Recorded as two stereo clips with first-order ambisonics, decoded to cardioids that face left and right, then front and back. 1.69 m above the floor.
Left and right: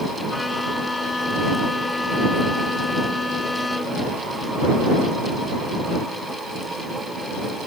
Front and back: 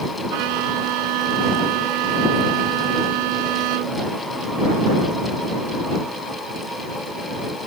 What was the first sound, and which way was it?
A violin, 170° left.